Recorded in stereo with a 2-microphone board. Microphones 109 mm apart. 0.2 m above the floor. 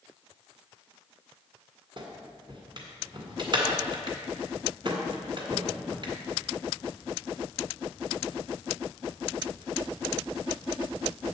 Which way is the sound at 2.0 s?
45° right (ahead or behind).